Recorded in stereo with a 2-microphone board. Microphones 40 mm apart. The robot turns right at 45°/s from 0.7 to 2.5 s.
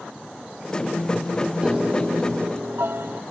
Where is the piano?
155° right; by 3.2 s 115° right.